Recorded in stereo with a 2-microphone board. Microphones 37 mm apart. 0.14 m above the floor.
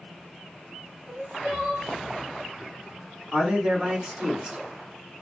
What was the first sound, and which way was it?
Crying, centre (ahead or behind).